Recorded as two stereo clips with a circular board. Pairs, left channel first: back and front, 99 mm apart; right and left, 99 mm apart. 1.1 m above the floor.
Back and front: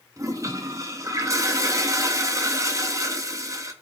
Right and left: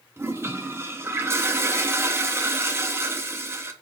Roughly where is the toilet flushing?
Ahead left.